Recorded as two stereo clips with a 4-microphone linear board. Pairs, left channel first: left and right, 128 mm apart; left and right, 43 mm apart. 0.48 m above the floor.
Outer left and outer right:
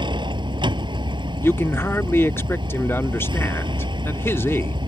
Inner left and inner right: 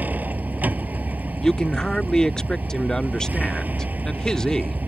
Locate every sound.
0.0 s a vehicle: 40° right (ahead or behind)
1.4 s a man speaking: 20° left (ahead or behind)